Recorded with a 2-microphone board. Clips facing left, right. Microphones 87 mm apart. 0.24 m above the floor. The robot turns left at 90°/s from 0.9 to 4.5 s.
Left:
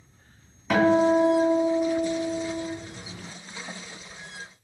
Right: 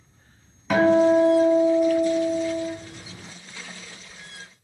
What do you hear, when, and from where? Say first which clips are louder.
0.7 s a guitar: right 3 dB; 170° right, 1.5 m; by 2.7 s 30° left, 1.5 m